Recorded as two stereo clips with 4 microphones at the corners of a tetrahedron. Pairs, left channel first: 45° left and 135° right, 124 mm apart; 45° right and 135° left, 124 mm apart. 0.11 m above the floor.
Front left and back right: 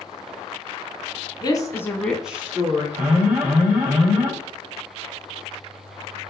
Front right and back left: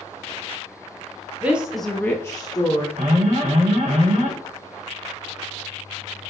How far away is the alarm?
About 4 m.